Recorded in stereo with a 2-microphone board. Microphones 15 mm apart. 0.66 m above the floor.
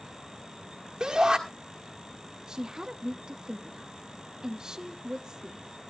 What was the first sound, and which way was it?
A shout, 45° right (ahead or behind).